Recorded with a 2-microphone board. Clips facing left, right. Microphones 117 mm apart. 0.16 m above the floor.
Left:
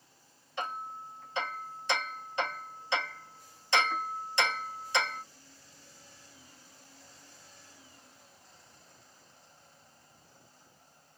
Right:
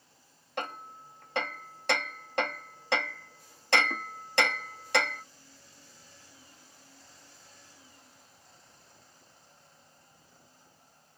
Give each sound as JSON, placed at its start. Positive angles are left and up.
{"t": 0.6, "sound": "hammering", "side_deg": -65, "distance_m": 1.1}